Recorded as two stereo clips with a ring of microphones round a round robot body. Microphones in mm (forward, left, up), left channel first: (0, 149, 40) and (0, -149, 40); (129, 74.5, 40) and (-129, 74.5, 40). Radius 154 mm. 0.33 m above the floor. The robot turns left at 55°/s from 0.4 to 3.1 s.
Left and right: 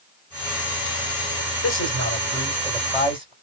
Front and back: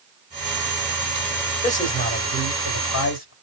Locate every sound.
1.6 s a man speaking: 60° left, 2 m; by 3.3 s 20° right, 2 m